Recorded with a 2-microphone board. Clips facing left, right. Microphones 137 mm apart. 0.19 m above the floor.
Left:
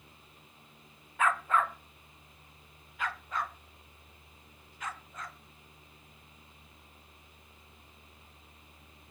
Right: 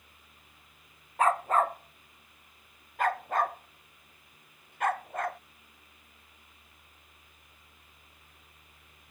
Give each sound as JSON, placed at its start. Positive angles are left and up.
{"t": 1.2, "sound": "a dog barking", "side_deg": -35}